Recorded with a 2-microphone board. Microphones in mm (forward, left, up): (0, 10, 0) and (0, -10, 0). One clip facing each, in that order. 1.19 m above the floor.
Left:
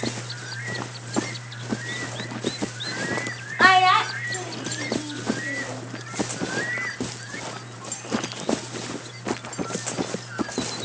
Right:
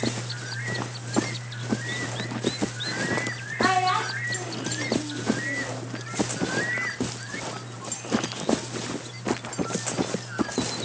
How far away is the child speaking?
About 0.6 m.